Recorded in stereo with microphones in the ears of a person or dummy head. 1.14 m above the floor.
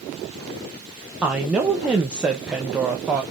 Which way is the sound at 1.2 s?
5° right (ahead or behind).